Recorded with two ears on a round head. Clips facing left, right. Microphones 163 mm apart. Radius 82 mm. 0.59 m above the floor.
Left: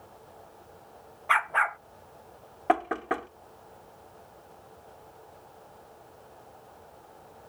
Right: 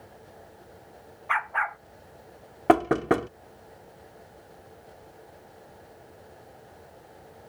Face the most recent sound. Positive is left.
turn(degrees=-55)  # may be behind; listen again after turning